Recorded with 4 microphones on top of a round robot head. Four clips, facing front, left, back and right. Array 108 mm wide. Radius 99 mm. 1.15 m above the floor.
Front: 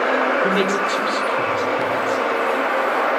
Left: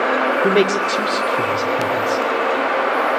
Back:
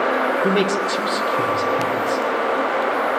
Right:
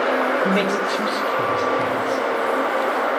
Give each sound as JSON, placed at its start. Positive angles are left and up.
{"t": 0.4, "sound": "a man speaking", "azimuth_deg": 105, "distance_m": 3.5}